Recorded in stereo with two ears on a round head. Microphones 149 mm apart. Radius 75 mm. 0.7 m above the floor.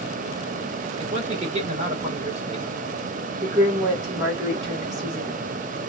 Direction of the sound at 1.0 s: 35° right (ahead or behind).